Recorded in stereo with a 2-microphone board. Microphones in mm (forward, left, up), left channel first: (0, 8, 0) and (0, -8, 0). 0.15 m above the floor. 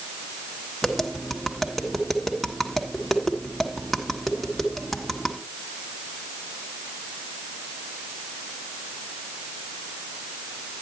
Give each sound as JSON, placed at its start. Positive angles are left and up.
{"t": 0.8, "sound": "tapping", "side_deg": -5, "distance_m": 1.6}